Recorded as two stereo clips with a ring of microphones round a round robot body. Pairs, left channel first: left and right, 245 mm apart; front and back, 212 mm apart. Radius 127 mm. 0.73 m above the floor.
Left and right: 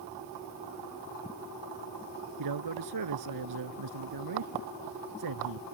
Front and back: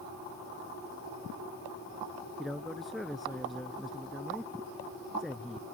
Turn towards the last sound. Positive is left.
turn(degrees=-90)